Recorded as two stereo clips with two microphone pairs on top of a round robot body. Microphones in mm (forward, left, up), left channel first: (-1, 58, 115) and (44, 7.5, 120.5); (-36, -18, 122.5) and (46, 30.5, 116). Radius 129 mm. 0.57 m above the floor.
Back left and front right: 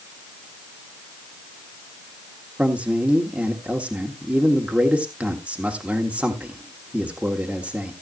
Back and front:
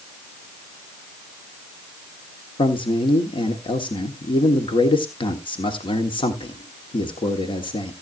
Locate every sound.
2.6 s a man speaking: 120° right, 1.4 m